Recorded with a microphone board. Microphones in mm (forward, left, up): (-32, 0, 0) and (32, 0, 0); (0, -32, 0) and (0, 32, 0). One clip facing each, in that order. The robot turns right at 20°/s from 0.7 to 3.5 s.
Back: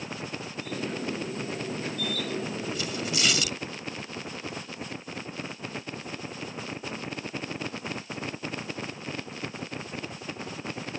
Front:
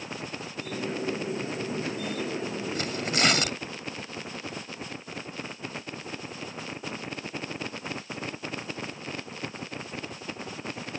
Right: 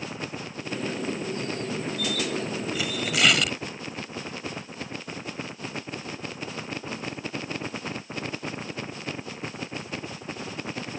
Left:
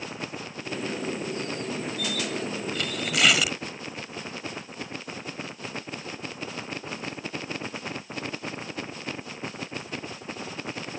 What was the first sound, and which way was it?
Tearing paper, 10° right.